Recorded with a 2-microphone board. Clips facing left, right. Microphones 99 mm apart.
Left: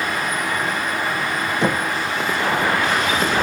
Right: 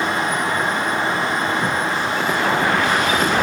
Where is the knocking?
85° left, 1.7 m.